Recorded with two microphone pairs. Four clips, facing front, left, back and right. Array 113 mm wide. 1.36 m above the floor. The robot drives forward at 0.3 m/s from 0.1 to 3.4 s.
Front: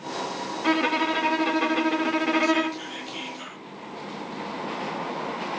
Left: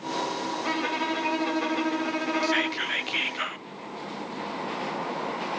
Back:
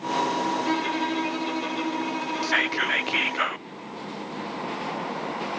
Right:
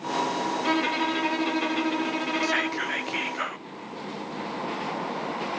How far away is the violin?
About 2.5 m.